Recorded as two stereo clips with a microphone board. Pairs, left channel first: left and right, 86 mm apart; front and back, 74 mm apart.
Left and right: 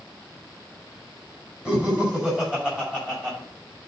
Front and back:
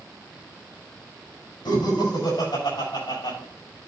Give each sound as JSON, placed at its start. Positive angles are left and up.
{"t": 1.6, "sound": "laughter", "azimuth_deg": -10, "distance_m": 5.5}